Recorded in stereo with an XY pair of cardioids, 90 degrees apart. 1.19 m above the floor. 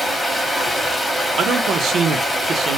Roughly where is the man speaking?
Ahead right.